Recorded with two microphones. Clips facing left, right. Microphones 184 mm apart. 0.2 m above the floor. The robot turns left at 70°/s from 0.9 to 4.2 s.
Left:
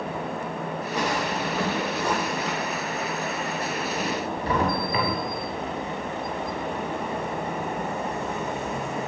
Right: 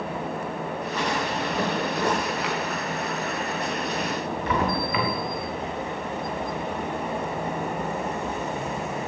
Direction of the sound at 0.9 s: 15° left (ahead or behind).